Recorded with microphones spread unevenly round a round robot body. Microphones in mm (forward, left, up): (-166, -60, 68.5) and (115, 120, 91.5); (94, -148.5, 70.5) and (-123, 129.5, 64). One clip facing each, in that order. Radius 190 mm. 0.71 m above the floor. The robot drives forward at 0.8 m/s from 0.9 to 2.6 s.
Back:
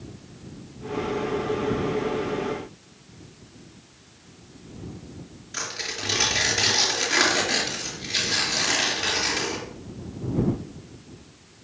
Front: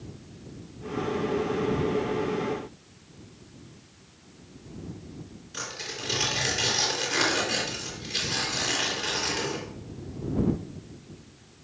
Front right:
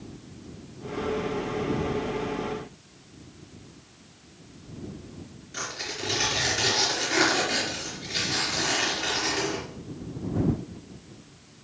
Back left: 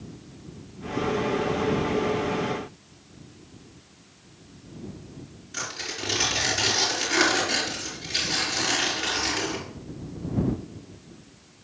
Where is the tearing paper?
160° right, 4.5 m.